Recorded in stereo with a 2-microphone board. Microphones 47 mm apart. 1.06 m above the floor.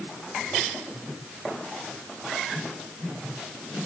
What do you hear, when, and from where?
Only background noise.